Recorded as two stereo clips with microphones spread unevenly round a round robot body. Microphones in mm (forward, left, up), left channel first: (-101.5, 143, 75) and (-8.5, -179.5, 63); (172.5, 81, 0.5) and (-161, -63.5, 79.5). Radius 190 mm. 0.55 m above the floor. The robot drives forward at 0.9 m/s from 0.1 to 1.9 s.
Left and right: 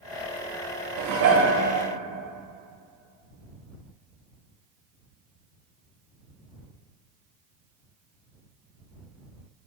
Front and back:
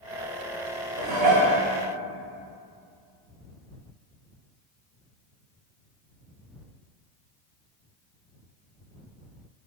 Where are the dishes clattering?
95° right, 0.7 m; by 1.6 s 135° right, 0.9 m.